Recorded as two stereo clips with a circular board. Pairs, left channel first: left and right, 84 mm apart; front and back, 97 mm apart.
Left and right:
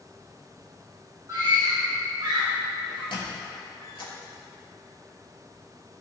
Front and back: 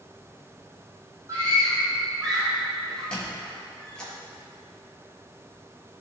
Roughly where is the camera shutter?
No camera shutter in this recording.